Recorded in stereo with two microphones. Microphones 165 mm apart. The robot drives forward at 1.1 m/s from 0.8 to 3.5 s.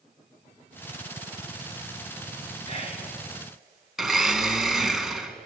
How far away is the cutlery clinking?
No cutlery clinking in this recording.